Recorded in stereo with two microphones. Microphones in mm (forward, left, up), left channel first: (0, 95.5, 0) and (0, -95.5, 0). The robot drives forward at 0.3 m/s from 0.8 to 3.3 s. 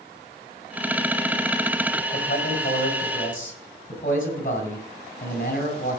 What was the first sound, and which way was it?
A man speaking, 50° left (ahead or behind).